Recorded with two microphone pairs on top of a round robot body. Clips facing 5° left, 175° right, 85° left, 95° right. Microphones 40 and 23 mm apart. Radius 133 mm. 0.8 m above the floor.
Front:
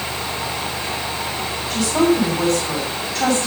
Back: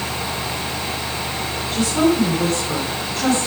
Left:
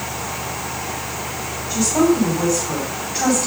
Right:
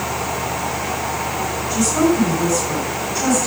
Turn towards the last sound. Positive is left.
turn(degrees=25)